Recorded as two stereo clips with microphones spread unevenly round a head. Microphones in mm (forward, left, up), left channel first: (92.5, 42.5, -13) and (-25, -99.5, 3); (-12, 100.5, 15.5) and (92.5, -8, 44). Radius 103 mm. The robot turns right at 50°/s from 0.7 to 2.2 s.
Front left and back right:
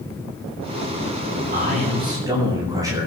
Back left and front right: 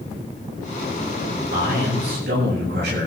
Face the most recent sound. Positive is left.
turn(degrees=-60)